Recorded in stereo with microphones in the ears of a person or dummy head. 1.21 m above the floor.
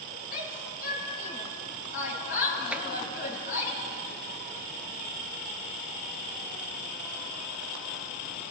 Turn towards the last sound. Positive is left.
turn(degrees=-10)  # may be behind; listen again after turning